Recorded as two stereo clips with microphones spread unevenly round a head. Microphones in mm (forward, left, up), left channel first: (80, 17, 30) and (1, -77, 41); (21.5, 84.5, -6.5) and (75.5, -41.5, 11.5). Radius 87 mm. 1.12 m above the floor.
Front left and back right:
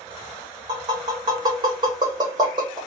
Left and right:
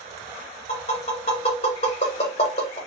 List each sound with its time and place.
0.7 s tapping: 165° left, 1.3 m